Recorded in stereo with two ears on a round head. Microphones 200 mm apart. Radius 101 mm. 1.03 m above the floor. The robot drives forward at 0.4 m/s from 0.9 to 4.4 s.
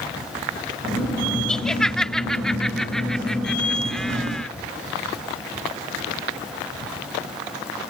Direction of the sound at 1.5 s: 5° left (ahead or behind).